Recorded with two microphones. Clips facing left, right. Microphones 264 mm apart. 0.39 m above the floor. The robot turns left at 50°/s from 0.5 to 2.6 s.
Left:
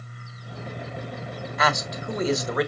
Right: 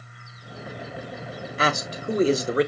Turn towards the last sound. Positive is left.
turn(degrees=-125)